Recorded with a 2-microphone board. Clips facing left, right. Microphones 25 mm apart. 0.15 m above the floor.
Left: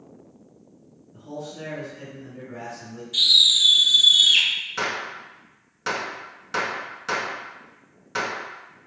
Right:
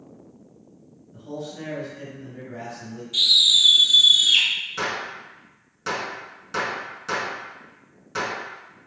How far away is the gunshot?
About 0.6 m.